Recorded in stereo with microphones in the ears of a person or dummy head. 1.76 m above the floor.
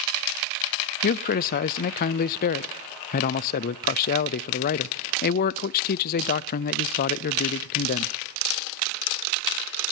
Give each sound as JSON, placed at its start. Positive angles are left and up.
{"t": 1.0, "sound": "a man speaking", "side_deg": 45, "distance_m": 0.5}